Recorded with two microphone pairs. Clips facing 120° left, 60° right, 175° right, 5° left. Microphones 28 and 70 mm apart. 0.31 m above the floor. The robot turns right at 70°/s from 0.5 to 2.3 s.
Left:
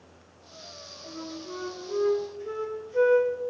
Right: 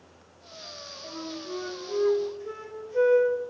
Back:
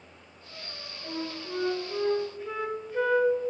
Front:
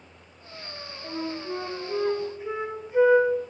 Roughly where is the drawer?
I don't hear a drawer.